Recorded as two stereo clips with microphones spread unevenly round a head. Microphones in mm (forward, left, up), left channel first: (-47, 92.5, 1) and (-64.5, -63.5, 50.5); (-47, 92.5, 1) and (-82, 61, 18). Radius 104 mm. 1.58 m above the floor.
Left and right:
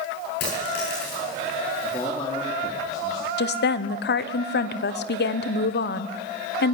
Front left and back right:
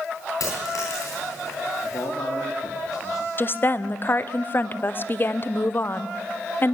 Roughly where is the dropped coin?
Ahead left.